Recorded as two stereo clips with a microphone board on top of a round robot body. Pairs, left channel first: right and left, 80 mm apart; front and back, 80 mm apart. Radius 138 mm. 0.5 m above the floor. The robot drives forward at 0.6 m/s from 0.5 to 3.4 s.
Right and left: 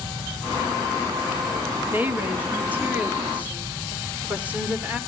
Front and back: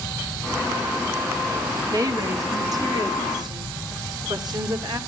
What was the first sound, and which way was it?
A woman speaking, 150° left.